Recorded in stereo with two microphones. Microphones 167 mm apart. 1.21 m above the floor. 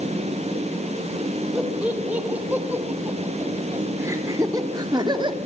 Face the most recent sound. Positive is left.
turn(degrees=-30)  # may be behind; listen again after turning